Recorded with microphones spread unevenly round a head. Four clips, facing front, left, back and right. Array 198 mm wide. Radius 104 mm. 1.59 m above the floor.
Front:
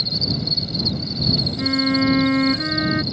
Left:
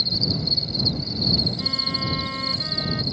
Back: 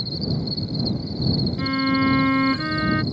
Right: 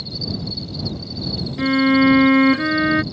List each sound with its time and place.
0.0 s an insect: 20° left
1.6 s a violin: 85° right